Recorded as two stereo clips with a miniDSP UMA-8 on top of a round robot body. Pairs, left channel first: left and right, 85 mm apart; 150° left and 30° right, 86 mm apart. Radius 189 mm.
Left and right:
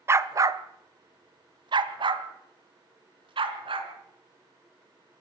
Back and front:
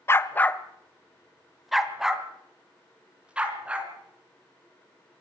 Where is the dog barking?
150° right, 0.9 m; by 3.9 s 105° right, 3 m.